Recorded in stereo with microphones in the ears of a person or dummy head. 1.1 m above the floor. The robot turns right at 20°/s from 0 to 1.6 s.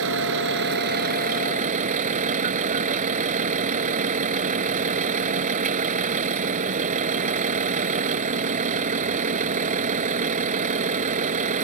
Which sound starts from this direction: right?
A vehicle, at 0.0 s.